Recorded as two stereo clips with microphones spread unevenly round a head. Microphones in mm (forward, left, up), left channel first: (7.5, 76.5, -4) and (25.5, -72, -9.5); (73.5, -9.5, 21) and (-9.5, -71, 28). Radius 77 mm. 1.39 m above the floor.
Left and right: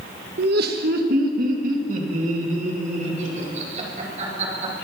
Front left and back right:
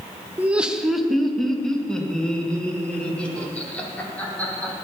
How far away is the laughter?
About 1.0 m.